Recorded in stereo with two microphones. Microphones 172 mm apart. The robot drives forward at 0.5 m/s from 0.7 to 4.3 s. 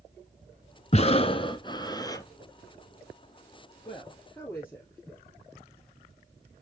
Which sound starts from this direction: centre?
A woman speaking, at 3.9 s.